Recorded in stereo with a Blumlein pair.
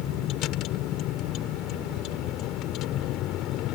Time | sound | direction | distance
0.0 | a vehicle | 35° left | ?